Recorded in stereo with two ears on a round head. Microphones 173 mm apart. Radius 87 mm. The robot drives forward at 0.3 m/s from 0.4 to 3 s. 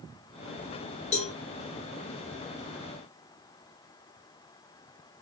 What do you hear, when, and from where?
1.1 s a cowbell: 35° left (ahead or behind), 0.8 m